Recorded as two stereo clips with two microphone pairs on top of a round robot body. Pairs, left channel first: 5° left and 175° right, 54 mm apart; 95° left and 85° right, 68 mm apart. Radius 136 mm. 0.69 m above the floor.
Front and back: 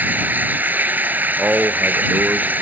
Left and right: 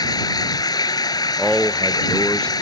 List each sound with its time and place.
0.0 s running water: 125° left
1.4 s a man speaking: 175° left